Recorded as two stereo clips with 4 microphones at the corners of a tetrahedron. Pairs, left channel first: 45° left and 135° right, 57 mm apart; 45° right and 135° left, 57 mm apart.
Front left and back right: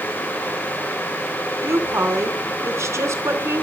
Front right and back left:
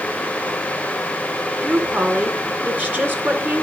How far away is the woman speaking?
About 3 m.